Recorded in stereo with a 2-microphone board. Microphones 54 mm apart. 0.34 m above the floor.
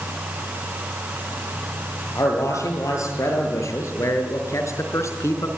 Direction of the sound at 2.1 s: 70° left (ahead or behind).